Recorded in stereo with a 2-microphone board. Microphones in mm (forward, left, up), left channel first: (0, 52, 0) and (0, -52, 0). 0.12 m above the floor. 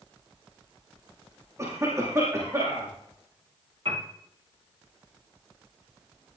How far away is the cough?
About 4.5 m.